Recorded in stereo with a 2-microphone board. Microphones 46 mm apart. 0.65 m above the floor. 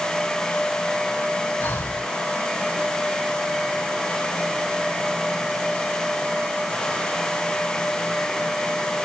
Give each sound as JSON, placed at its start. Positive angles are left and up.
{"t": 1.6, "sound": "breathing", "side_deg": 60, "distance_m": 3.0}